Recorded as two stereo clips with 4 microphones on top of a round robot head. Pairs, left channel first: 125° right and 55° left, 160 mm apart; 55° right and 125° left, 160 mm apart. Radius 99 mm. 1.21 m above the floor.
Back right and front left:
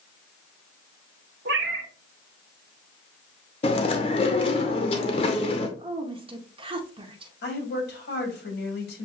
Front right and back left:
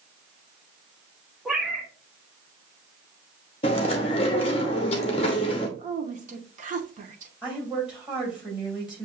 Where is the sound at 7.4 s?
150° right, 2.5 m.